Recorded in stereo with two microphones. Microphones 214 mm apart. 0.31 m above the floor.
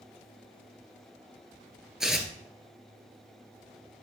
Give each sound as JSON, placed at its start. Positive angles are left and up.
{"t": 2.0, "sound": "tearing paper", "side_deg": 0, "distance_m": 1.5}